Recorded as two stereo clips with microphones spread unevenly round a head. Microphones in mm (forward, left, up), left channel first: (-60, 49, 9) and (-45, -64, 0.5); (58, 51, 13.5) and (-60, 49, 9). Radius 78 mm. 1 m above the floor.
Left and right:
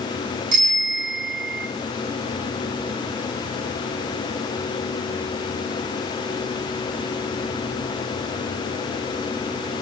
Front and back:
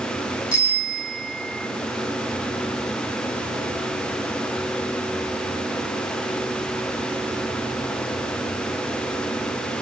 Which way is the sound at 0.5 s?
45° right.